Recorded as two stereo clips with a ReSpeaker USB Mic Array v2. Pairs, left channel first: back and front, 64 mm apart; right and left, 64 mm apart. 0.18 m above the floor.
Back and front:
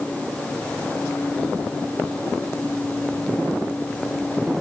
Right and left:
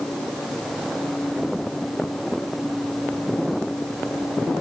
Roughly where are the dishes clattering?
No dishes clattering in this recording.